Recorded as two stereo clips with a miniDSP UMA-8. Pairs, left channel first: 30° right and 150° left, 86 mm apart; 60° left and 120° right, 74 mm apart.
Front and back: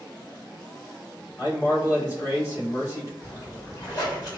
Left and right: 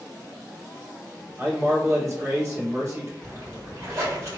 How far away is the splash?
About 2.0 m.